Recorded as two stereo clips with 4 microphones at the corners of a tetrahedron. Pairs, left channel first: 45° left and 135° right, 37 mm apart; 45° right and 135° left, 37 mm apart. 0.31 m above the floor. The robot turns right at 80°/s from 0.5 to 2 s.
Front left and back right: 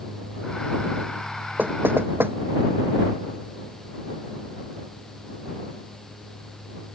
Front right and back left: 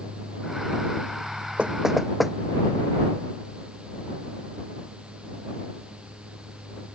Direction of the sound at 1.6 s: 170° right.